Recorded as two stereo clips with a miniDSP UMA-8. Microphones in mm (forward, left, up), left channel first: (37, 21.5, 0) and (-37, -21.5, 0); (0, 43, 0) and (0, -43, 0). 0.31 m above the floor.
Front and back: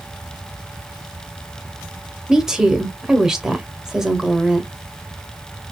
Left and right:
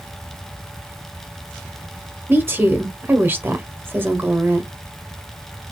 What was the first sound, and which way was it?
A woman speaking, 75° right.